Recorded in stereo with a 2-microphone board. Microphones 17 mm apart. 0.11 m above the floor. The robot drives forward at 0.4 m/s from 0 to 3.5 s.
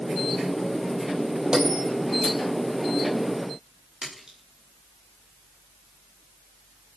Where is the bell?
40° right (ahead or behind), 3 m.